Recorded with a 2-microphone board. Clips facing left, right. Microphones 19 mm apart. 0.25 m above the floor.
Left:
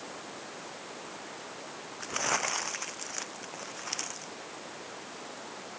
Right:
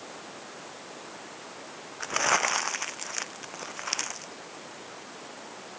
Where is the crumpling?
25° right (ahead or behind).